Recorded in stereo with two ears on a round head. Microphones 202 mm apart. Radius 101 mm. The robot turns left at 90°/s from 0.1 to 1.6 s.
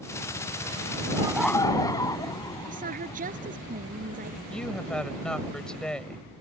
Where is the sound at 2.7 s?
35° right (ahead or behind).